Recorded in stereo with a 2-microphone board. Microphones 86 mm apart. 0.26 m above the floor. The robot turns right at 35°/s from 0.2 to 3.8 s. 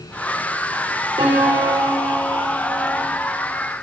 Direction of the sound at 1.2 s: 60° right.